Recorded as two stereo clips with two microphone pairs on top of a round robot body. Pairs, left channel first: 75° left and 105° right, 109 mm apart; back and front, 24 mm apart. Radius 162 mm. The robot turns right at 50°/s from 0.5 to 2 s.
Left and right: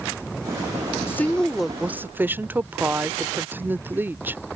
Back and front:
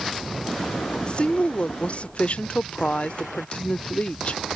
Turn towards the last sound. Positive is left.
turn(degrees=-170)